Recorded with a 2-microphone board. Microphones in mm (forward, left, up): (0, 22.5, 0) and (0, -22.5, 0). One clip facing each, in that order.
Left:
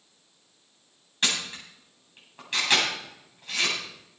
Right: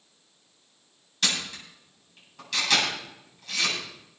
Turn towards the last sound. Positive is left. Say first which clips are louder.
# left 1 dB
turn(degrees=30)  # may be behind; listen again after turning